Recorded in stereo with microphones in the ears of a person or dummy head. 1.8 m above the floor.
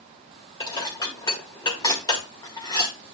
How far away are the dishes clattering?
About 2.0 m.